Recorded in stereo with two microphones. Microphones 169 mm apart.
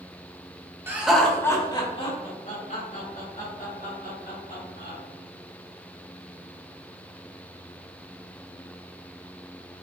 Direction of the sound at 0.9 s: 15° right (ahead or behind).